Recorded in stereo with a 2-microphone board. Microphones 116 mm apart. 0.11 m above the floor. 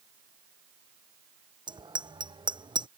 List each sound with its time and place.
1.7 s a bicycle bell: 40° right (ahead or behind)